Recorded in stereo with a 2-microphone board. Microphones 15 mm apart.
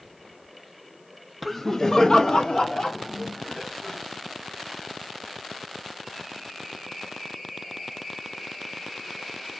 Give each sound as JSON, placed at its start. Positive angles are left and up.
{"t": 1.4, "sound": "laughter", "side_deg": 5, "distance_m": 0.6}